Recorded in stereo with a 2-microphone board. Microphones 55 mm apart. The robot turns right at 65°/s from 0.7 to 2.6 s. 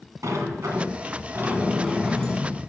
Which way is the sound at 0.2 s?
90° right.